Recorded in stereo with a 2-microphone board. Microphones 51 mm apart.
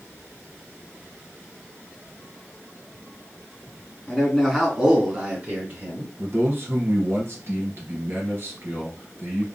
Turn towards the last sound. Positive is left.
turn(degrees=-50)  # may be behind; listen again after turning